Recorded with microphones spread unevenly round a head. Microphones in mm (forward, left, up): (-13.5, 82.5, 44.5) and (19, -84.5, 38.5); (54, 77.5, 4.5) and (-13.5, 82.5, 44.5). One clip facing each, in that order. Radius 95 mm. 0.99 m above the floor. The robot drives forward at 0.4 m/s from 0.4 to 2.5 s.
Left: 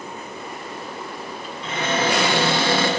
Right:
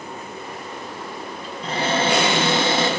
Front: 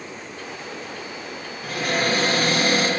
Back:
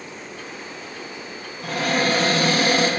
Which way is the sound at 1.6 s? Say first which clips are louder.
Right 1 dB, back 2 dB; 130° right.